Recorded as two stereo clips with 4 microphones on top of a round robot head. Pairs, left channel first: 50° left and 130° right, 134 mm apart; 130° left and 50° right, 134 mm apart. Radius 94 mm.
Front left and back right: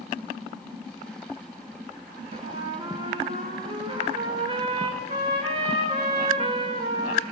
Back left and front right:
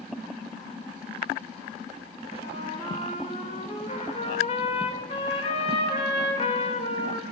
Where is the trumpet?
175° left, 2.5 m.